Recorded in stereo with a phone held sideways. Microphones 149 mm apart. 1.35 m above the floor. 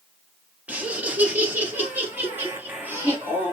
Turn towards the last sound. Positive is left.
turn(degrees=-15)  # may be behind; listen again after turning